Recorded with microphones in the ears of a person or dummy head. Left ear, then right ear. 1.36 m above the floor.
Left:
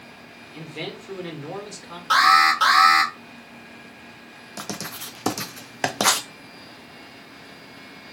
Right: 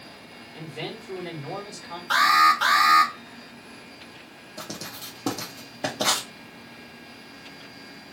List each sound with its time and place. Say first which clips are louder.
0.5 s a man speaking: left 2 dB; 80° left, 2 m
2.1 s an alarm: left 2 dB; 25° left (ahead or behind), 1.3 m
4.6 s writing: left 3 dB; 55° left (ahead or behind), 0.8 m